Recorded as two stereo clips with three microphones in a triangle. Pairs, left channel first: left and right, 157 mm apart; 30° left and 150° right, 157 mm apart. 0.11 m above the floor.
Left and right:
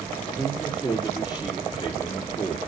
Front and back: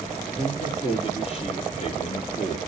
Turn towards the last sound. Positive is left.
turn(degrees=40)